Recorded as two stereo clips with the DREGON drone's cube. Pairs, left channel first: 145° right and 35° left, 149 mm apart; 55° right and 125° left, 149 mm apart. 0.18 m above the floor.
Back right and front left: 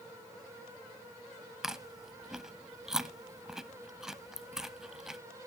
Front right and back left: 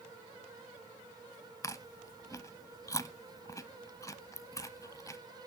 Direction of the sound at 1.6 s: 45° right.